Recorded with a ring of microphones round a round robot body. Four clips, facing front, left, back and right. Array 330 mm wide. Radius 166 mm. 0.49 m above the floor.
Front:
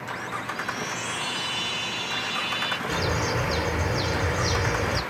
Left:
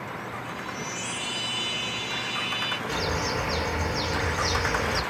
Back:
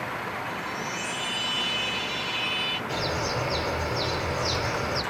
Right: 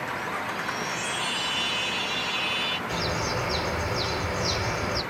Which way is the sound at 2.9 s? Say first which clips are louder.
Left 1 dB, front 2 dB; 15° left.